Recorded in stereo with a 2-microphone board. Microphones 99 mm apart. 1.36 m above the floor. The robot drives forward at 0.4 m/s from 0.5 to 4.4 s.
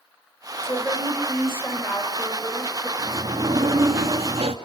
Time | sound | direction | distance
0.6 | a woman speaking | 25° left (ahead or behind) | 5 m
3.0 | a sliding door | 70° right (ahead or behind) | 2 m